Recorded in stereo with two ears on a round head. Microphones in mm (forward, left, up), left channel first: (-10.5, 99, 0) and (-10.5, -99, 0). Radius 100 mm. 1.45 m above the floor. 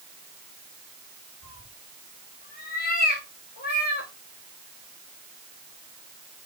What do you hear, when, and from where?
1.4 s a cat meowing: 40° left (ahead or behind), 4 m; by 4.1 s 45° left (ahead or behind), 2.5 m